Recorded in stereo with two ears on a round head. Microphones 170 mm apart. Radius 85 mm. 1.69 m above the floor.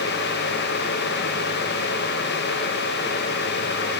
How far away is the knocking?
No knocking in this recording.